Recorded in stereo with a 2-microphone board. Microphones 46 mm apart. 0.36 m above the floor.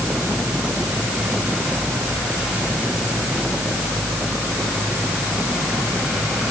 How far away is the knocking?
No knocking in this recording.